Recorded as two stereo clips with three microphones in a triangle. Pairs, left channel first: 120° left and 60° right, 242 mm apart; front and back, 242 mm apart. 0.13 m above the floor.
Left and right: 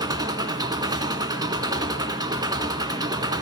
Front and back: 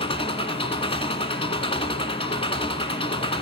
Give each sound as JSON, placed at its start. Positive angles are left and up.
{"t": 0.0, "sound": "an engine running", "azimuth_deg": -15, "distance_m": 1.4}